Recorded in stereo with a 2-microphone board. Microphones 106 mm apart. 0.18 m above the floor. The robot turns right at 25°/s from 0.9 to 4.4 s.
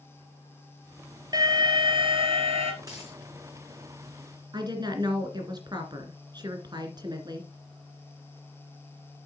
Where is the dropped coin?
30° right (ahead or behind), 4 m; by 3.2 s 25° right (ahead or behind), 4 m.